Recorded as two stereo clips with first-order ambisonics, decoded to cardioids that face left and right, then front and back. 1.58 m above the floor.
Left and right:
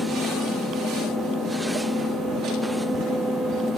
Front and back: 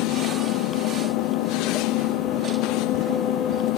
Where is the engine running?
20° left.